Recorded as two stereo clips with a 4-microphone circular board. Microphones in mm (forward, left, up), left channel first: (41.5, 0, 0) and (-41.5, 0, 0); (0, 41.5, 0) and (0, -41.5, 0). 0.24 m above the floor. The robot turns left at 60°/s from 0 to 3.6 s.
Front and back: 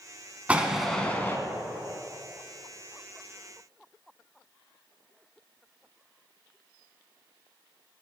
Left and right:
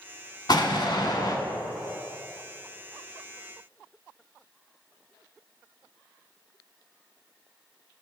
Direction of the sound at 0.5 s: 110° left.